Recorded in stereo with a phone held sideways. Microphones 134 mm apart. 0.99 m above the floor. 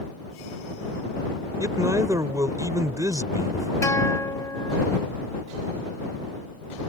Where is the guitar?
25° left (ahead or behind).